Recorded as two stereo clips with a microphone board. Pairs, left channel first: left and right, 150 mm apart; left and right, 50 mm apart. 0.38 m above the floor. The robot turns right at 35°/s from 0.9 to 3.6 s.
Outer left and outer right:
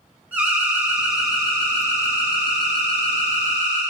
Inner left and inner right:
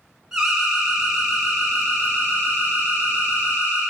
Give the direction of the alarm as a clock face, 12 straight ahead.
12 o'clock.